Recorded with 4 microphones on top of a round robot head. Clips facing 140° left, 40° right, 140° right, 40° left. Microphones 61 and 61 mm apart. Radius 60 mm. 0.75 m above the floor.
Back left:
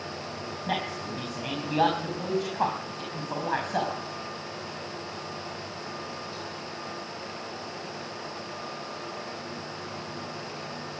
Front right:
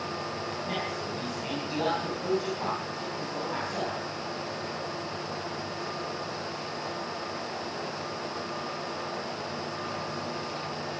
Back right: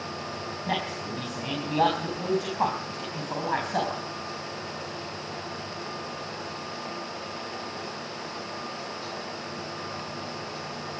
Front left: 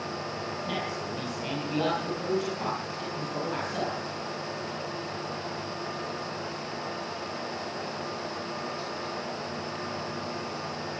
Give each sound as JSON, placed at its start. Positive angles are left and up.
{"t": 0.7, "sound": "a man speaking", "azimuth_deg": 165, "distance_m": 5.0}